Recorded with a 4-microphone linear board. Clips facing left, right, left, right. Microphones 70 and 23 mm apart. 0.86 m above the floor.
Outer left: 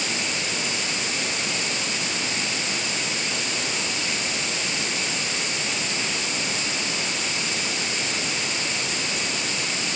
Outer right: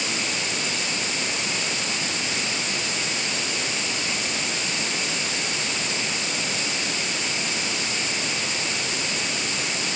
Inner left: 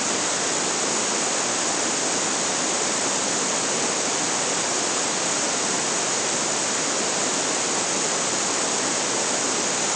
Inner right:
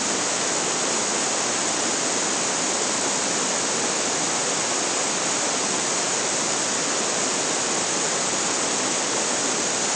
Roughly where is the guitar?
No guitar in this recording.